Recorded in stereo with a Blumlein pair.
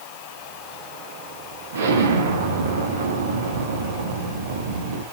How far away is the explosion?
About 1.2 m.